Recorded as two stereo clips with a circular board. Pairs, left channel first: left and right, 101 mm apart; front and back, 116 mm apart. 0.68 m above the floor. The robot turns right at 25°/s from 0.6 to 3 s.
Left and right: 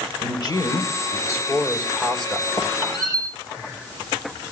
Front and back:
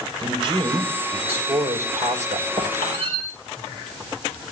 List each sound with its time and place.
0.2 s a man speaking: 130° left, 2.5 m; by 2.5 s straight behind, 2.5 m
2.6 s a squeak: 125° left, 5 m; by 3.2 s 135° left, 5 m